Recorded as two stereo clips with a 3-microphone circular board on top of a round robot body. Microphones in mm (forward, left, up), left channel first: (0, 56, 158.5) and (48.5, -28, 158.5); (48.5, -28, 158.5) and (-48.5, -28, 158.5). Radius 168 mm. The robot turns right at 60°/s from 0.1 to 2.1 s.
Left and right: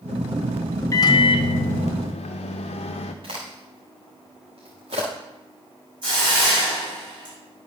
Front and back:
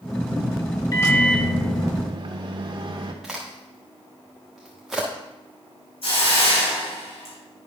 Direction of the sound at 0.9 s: 60° left.